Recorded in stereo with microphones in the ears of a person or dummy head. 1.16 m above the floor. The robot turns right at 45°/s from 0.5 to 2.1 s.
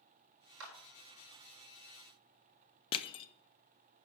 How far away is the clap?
About 1.6 m.